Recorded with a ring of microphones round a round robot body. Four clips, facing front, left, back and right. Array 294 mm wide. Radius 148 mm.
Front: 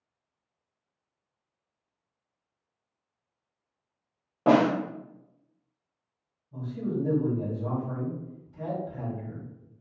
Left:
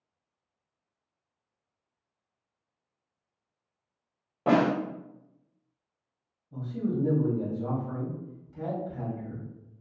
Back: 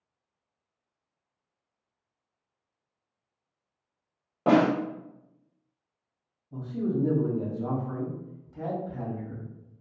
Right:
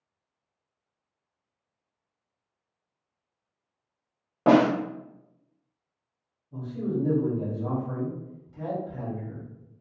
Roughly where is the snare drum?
Right.